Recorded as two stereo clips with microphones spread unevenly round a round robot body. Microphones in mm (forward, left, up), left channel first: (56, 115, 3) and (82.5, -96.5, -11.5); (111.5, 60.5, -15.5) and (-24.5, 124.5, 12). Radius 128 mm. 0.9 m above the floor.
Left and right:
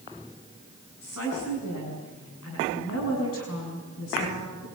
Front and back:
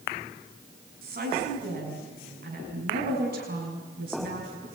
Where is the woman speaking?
140° left, 6.5 m.